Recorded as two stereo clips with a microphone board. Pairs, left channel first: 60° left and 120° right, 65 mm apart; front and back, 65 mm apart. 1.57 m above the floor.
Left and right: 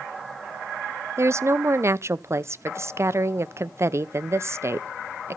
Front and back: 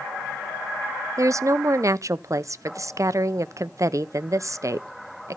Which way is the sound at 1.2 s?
160° right.